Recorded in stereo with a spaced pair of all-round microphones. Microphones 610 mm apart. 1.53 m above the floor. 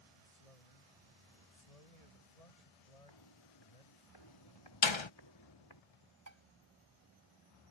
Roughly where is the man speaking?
Left.